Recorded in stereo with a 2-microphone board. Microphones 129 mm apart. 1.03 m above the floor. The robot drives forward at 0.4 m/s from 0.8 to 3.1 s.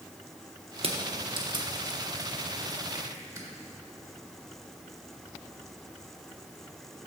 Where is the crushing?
45° right (ahead or behind), 0.8 m; by 3.5 s 25° right (ahead or behind), 1.5 m.